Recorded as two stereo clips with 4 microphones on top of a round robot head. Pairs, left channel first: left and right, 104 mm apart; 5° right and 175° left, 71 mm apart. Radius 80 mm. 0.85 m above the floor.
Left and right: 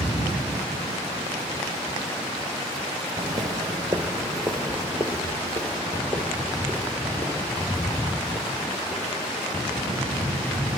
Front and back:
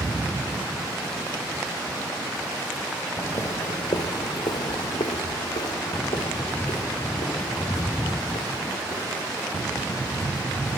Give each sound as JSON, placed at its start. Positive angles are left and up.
{"t": 3.2, "sound": "footsteps", "azimuth_deg": -65, "distance_m": 0.9}